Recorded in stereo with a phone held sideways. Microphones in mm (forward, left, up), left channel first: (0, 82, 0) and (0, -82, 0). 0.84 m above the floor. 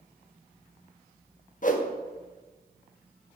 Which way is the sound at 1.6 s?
50° left (ahead or behind).